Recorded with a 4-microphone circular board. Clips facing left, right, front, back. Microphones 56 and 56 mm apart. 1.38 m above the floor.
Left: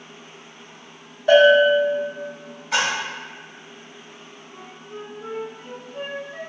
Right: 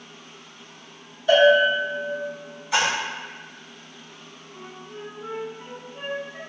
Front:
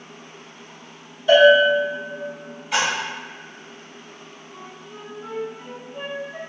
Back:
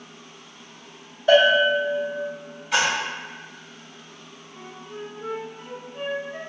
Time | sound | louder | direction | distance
1.3 | a bell | left 3 dB, front 4 dB | 130° left | 1.5 m
2.7 | a splash | even, even | 90° left | 1.7 m
4.5 | a flute | left 1 dB, back 3 dB | 90° left | 0.8 m